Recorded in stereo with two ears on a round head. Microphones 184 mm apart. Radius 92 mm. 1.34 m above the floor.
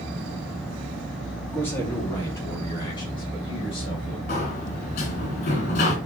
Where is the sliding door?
40° left (ahead or behind), 3 m.